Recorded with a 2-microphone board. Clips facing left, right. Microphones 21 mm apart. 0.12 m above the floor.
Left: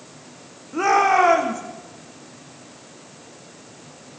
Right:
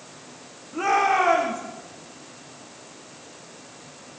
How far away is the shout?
About 5.5 m.